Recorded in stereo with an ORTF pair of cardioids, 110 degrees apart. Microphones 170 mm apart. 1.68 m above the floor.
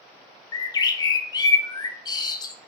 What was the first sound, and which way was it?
A bird, 25° left.